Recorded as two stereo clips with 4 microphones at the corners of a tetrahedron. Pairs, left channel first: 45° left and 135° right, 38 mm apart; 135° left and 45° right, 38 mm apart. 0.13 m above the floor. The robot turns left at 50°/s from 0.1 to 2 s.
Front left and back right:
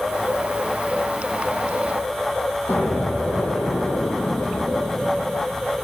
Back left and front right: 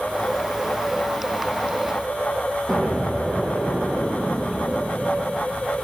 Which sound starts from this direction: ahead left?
An explosion, at 2.7 s.